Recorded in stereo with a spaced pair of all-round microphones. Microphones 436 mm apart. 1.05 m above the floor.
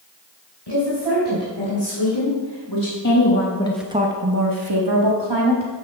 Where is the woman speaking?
75° left (ahead or behind), 4 m; by 5.7 s 75° right (ahead or behind), 2.5 m.